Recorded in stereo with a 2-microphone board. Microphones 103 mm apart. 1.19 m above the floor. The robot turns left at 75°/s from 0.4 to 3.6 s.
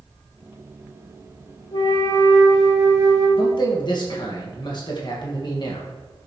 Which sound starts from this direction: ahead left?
A flute, at 1.7 s.